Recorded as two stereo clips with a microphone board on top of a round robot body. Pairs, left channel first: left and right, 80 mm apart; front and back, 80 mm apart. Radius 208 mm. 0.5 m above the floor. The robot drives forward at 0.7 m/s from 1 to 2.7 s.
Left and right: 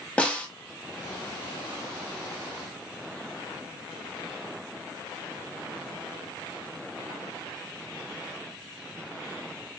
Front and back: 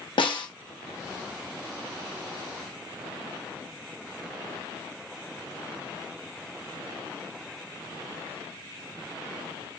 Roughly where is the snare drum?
Ahead.